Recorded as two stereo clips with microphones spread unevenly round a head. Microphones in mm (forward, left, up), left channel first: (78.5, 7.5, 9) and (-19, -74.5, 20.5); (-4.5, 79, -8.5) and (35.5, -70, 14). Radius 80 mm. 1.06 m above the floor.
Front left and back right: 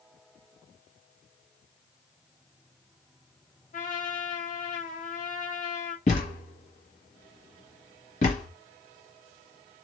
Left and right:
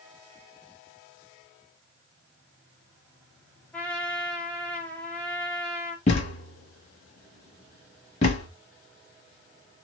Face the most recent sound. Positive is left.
turn(degrees=65)